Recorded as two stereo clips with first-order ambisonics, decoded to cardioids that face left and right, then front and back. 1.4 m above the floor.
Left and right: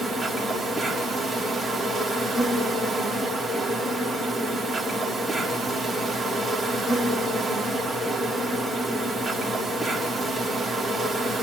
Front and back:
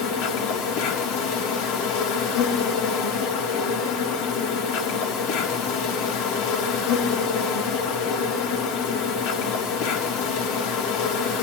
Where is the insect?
5° right, 3.5 m.